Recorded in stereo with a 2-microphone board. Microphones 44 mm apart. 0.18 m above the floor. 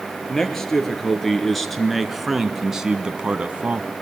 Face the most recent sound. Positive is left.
turn(degrees=-30)  # may be behind; listen again after turning